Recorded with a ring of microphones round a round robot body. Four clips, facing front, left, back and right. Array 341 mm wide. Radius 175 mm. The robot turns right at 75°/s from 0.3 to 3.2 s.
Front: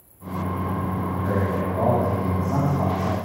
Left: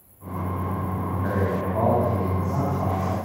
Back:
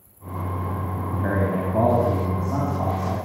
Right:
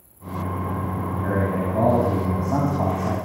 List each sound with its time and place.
1.1 s a man speaking: 165° left, 5 m; by 3.1 s 40° right, 5 m